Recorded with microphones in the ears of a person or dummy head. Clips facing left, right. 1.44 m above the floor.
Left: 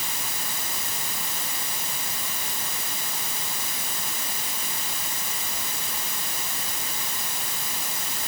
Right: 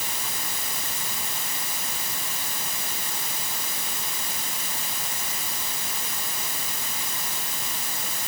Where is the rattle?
No rattle in this recording.